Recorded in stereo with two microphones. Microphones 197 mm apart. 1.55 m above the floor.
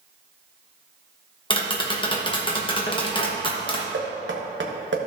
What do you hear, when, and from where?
1.5 s tapping: 25° left (ahead or behind), 1.1 m
3.9 s knocking: 75° right (ahead or behind), 1.2 m